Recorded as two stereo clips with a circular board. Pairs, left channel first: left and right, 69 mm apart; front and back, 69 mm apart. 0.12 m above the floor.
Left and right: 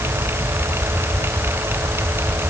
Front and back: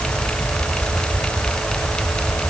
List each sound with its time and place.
Only background noise.